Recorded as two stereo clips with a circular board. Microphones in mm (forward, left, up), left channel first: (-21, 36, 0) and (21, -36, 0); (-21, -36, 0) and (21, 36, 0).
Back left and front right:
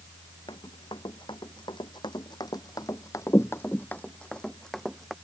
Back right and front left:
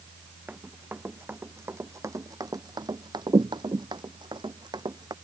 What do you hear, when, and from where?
0.5 s running footsteps: 130° left; by 5.2 s 30° left